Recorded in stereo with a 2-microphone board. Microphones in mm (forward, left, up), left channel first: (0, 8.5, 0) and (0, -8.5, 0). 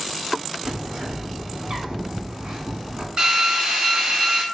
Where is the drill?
55° right (ahead or behind), 1.2 m.